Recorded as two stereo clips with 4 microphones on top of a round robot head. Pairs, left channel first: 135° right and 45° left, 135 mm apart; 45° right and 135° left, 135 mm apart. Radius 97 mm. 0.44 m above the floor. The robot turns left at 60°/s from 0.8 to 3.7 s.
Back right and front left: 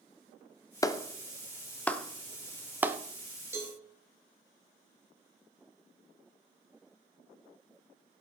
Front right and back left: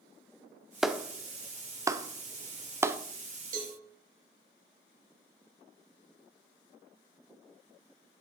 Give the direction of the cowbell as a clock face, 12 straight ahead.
8 o'clock.